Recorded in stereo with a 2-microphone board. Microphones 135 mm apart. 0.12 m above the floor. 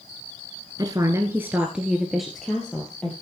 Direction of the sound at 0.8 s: 30° right (ahead or behind).